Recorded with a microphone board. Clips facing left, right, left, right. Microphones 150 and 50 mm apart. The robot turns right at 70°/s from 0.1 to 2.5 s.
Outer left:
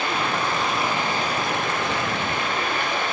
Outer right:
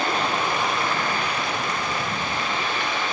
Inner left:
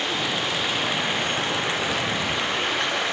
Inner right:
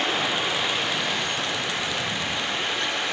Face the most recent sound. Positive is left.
turn(degrees=125)